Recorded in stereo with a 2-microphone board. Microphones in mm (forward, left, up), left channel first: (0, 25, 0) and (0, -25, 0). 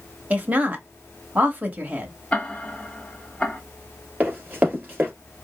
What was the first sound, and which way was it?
A woman speaking, 30° right (ahead or behind).